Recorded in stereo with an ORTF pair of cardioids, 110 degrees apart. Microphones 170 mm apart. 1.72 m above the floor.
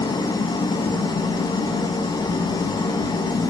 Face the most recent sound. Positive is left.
turn(degrees=25)